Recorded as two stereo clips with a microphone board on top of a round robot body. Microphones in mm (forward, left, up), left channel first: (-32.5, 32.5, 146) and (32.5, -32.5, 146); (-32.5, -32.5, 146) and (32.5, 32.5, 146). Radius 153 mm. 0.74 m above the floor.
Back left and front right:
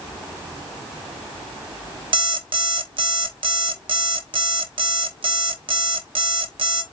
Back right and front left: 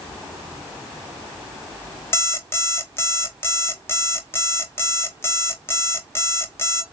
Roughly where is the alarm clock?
Right.